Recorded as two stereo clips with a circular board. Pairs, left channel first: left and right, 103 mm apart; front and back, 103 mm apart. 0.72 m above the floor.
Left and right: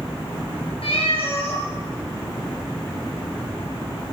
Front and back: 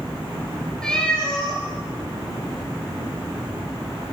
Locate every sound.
0.8 s a cat meowing: 80° left, 4.5 m